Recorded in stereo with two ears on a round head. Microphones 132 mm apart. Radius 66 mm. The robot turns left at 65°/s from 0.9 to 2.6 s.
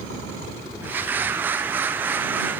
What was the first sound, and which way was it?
Only background noise.